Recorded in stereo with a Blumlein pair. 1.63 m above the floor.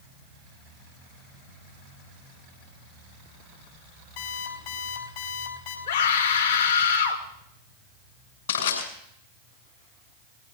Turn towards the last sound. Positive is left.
turn(degrees=60)